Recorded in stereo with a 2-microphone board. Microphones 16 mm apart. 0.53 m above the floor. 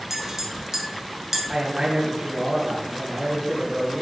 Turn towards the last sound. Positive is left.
turn(degrees=-40)  # may be behind; listen again after turning